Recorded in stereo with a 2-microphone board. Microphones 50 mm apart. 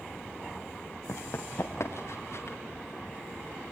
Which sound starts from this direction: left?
Running footsteps, at 1.1 s.